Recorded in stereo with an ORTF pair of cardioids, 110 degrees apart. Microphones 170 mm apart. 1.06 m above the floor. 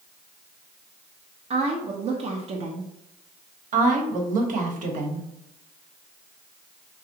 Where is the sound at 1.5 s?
40° right, 0.7 m.